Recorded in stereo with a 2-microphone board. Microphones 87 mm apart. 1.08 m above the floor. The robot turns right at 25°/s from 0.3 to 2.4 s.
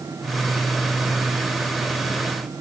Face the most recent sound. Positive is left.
No sound to turn to.